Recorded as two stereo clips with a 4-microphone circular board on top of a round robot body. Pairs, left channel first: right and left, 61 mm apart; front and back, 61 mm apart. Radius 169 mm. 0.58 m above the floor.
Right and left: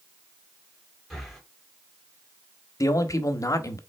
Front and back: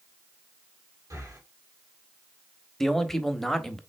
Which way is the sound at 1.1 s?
Straight behind.